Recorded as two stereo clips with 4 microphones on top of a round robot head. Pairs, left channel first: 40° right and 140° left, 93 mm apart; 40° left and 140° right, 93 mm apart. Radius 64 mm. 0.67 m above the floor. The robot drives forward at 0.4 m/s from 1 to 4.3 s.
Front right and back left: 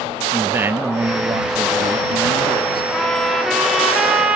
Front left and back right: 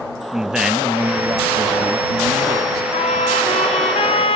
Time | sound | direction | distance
0.3 | a man speaking | 150° left | 0.5 m
2.9 | a trumpet | 45° left | 1.6 m